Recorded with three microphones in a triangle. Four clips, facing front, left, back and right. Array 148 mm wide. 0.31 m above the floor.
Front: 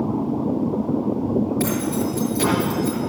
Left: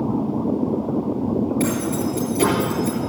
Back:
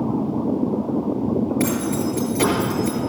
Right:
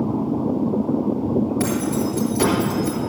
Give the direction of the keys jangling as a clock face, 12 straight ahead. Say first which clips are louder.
Even, back 1 dB; 4 o'clock.